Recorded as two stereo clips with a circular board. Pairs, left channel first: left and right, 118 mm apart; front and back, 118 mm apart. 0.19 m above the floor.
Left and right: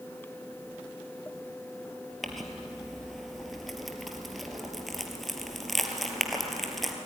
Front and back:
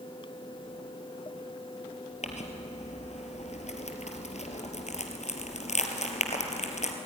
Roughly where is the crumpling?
Ahead.